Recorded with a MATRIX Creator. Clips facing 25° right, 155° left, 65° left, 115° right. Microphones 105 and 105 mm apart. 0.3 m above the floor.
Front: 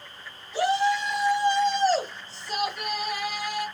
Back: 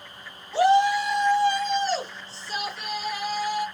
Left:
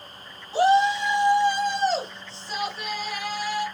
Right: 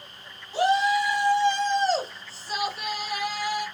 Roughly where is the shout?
Left.